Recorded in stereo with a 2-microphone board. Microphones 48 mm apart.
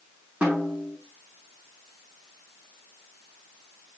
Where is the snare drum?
30° right (ahead or behind), 7 m.